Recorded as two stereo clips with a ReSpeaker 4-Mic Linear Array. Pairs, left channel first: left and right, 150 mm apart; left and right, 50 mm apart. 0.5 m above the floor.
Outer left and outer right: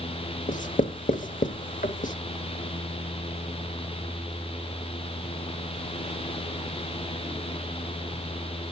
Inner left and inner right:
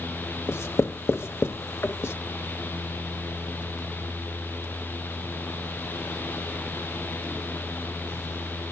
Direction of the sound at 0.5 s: 60° left (ahead or behind).